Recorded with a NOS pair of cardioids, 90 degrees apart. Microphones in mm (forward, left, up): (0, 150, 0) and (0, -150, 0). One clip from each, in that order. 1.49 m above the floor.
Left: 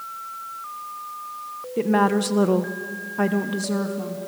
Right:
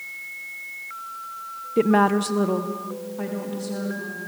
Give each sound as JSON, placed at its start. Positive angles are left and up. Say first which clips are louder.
{"t": 1.8, "sound": "a woman speaking", "louder": "right 1 dB", "azimuth_deg": -25, "distance_m": 1.1}